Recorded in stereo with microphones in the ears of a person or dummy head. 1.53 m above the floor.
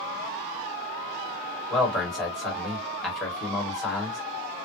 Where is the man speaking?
5° left (ahead or behind), 1.3 m.